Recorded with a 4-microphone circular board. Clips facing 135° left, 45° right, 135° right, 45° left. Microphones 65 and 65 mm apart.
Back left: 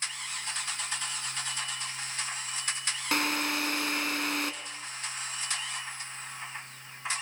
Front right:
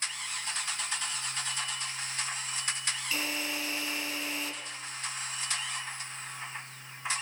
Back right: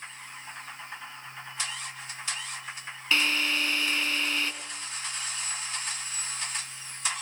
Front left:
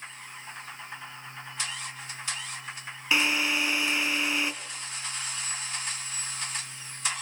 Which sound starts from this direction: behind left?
A drill, at 3.1 s.